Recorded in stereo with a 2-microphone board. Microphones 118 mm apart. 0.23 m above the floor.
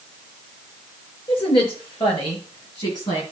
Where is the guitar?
I don't hear a guitar.